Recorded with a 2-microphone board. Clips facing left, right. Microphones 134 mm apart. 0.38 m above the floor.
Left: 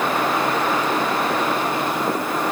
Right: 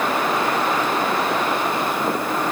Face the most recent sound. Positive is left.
No sound to turn to.